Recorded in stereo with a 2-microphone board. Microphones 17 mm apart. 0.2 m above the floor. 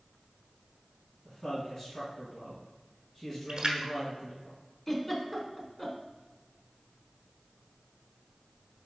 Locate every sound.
1.2 s a man speaking: 25° left (ahead or behind), 2 m
3.5 s a splash: 50° right (ahead or behind), 1.0 m
4.9 s a giggle: 20° left (ahead or behind), 0.9 m